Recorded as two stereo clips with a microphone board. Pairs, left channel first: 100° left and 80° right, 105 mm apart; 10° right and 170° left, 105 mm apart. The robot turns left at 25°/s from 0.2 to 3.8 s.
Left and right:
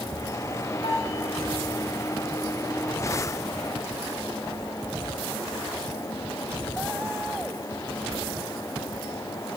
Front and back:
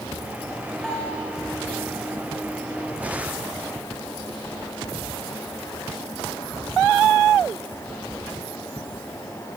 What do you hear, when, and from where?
0.8 s a bell: 70° left, 9.5 m; by 1.2 s 65° left, 9.5 m